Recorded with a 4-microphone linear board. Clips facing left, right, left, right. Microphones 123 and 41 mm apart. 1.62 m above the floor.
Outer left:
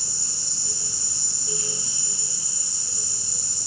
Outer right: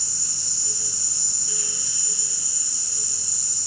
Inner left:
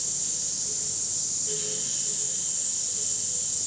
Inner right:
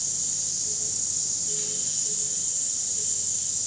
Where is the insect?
75° right (ahead or behind), 1.3 m.